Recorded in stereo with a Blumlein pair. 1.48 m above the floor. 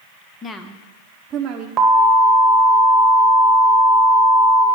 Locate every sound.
0.4 s a woman speaking: 25° left, 0.9 m; by 1.7 s 35° right, 1.1 m
1.8 s an alarm: 25° right, 1.4 m